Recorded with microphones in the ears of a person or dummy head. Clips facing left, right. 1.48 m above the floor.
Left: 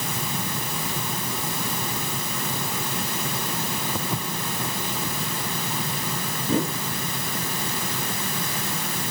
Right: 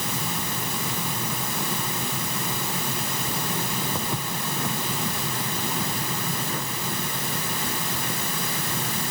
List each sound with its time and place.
4.0 s footsteps: 5° left (ahead or behind)
6.4 s a whoosh: 25° left (ahead or behind)